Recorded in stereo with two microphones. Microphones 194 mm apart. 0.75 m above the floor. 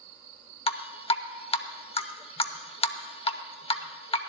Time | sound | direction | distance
0.7 | dripping | 30° left (ahead or behind) | 0.6 m